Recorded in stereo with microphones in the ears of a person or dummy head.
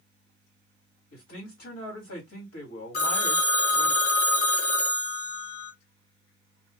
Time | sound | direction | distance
1.1 | a man speaking | 65° left (ahead or behind) | 1.8 m
2.9 | a phone ringing | 50° left (ahead or behind) | 0.7 m